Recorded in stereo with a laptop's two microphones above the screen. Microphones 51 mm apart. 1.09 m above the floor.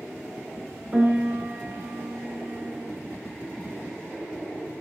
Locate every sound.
0.9 s a piano: 35° right (ahead or behind), 1.4 m